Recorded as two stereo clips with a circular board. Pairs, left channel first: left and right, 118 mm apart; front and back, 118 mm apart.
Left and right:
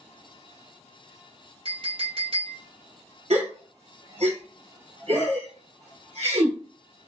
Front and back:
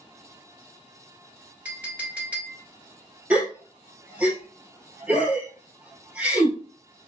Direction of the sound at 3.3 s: 100° right.